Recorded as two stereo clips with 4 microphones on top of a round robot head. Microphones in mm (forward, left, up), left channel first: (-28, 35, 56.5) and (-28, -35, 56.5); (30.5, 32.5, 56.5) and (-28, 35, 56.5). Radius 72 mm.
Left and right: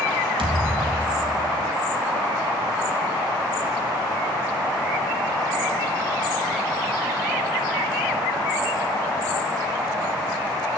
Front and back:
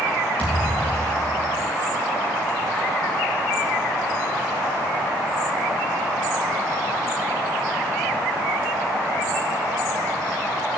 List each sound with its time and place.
0.4 s a thud: 80° right, 2.5 m